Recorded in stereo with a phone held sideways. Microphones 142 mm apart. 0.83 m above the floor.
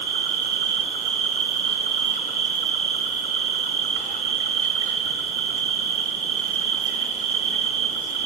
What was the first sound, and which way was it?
An insect, 60° left (ahead or behind).